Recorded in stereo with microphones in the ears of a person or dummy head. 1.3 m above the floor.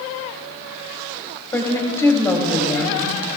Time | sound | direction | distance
1.5 | a woman speaking | 10° left (ahead or behind) | 3 m